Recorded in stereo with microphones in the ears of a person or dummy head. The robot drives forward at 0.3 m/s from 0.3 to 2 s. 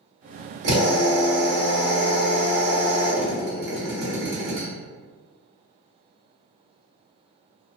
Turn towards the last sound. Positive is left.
turn(degrees=-55)  # may be behind; listen again after turning